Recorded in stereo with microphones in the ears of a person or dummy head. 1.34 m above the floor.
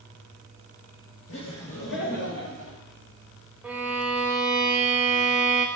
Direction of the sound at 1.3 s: 75° left (ahead or behind).